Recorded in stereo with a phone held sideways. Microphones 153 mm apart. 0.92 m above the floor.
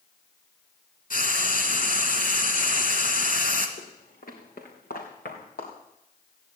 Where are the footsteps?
60° left (ahead or behind), 3.5 m; by 5.7 s 70° left (ahead or behind), 4 m.